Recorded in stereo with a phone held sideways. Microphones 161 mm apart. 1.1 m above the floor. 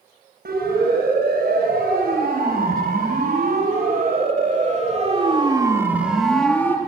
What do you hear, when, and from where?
0.5 s a siren: 85° right, 7 m; by 6.8 s 15° left (ahead or behind), 2.5 m